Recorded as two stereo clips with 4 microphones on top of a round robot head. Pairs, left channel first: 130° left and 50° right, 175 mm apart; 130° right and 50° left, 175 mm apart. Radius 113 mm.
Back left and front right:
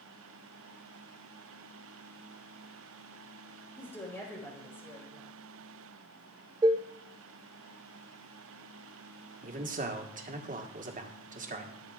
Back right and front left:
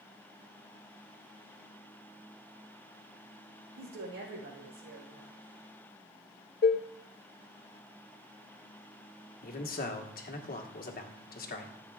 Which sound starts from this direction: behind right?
Dishes clattering, at 6.6 s.